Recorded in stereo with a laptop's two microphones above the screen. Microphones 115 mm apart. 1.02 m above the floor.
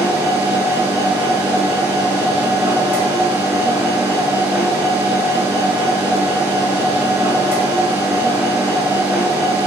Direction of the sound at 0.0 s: 20° right (ahead or behind).